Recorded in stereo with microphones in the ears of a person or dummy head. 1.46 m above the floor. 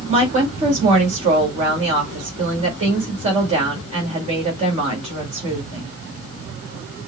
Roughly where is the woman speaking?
Right.